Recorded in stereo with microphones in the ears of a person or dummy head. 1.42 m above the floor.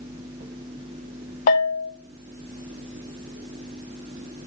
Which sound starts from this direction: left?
A bell, at 1.5 s.